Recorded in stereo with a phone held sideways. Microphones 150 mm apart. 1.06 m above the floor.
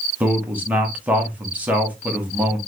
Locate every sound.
0.2 s a man speaking: 10° right (ahead or behind), 1.0 m